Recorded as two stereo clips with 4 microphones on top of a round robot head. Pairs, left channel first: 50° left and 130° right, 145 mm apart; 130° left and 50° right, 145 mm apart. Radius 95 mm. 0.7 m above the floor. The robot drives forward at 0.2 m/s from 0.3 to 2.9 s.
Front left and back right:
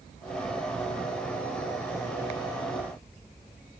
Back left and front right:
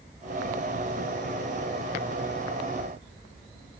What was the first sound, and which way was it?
Only background noise.